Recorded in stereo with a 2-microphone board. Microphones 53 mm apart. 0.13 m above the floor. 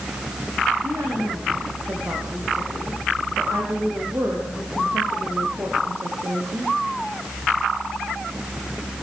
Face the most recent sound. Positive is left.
turn(degrees=-60)  # may be behind; listen again after turning